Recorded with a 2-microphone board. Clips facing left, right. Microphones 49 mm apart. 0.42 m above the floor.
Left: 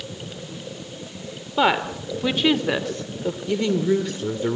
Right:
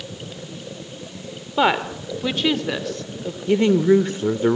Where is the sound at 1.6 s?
5° right (ahead or behind), 1.4 m; by 3.4 s 25° left (ahead or behind), 1.4 m.